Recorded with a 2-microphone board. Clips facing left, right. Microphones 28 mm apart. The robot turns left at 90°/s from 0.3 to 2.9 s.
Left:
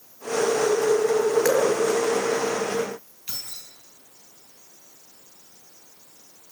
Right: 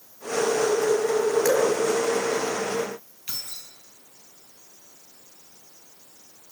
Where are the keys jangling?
10° right (ahead or behind), 4.5 m.